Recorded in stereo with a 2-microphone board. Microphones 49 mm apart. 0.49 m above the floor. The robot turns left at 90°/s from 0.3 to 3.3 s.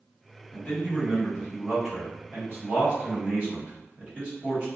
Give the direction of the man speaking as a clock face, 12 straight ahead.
8 o'clock.